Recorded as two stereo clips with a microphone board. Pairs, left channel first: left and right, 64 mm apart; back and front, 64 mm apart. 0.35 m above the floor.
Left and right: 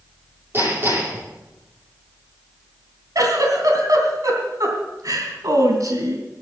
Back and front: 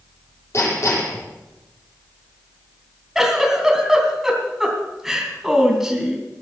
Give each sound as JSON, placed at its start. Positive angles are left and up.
{"t": 0.5, "sound": "hammering", "azimuth_deg": -140, "distance_m": 8.5}
{"t": 3.1, "sound": "a giggle", "azimuth_deg": -85, "distance_m": 3.0}